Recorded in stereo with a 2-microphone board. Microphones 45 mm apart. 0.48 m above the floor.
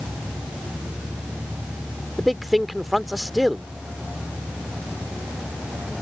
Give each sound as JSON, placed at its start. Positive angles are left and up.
{"t": 2.2, "sound": "a man speaking", "side_deg": -5}